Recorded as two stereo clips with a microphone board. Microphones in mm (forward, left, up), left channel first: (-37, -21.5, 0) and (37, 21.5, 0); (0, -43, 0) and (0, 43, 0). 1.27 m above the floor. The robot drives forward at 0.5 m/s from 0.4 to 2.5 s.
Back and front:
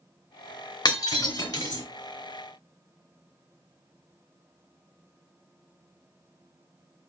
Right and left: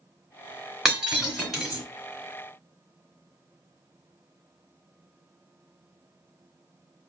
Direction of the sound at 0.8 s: 175° left.